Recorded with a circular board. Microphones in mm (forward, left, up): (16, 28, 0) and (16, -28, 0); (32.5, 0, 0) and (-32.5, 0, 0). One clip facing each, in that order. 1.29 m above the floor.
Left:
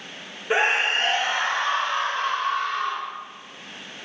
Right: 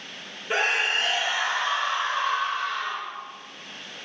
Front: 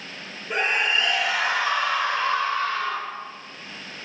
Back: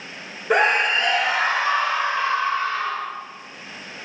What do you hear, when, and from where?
0.5 s a scream: 165° left, 1.1 m; by 3.1 s 110° left, 3 m